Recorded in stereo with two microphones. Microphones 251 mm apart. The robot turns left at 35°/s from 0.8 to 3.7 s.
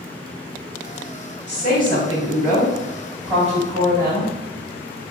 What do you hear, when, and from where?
1.5 s a woman speaking: 45° left, 1.9 m; by 4.3 s 30° right, 1.9 m